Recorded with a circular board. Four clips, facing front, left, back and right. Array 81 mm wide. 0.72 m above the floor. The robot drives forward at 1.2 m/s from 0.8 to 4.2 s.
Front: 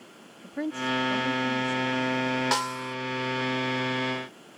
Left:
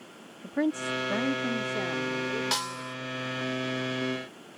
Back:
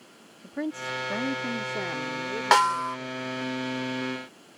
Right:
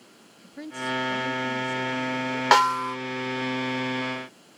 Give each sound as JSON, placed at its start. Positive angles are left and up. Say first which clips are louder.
{"t": 0.4, "sound": "a woman speaking", "louder": "left 4 dB, front 2 dB", "azimuth_deg": 95}
{"t": 2.5, "sound": "a snare drum", "louder": "right 14 dB, back 8 dB", "azimuth_deg": -120}